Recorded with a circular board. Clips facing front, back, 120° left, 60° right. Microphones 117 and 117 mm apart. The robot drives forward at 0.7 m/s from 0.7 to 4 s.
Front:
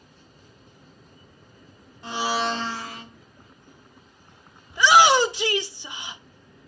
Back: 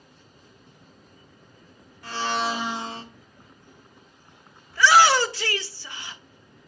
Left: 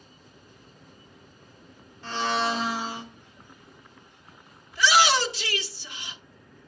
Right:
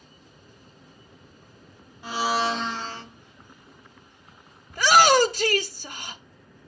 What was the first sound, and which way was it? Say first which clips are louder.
A blender: front 1 dB, right 2 dB; straight ahead.